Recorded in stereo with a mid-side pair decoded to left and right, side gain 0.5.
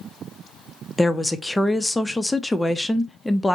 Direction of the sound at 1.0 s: 10° left.